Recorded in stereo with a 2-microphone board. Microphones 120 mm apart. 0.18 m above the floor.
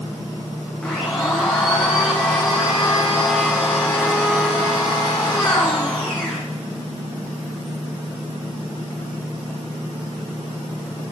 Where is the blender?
10° left (ahead or behind), 7.5 m.